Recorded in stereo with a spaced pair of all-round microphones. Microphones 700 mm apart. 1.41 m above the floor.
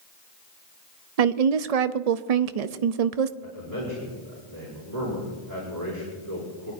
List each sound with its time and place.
1.2 s a woman speaking: 60° right (ahead or behind), 0.5 m
3.4 s a man speaking: 70° right (ahead or behind), 4.5 m